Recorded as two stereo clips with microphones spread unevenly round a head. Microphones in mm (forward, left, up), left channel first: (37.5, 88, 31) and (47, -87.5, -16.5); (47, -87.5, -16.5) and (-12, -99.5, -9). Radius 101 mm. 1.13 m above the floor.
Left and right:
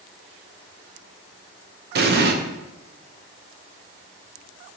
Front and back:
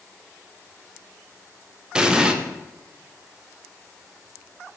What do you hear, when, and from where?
1.9 s an explosion: 90° right, 0.6 m